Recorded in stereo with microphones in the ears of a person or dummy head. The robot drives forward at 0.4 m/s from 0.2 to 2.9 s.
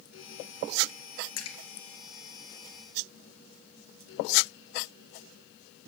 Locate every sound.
1.4 s a splash: 80° left, 2 m